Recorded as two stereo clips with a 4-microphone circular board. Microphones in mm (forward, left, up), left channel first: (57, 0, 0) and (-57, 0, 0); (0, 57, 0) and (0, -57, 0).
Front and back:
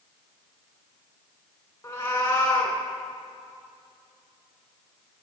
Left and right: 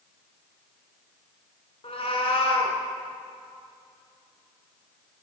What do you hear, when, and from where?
1.8 s a cat meowing: 65° left, 2 m